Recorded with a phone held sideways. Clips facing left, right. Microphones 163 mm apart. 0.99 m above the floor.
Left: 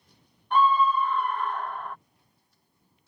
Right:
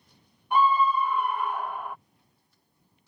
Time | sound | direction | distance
0.5 | a scream | 10° right (ahead or behind) | ?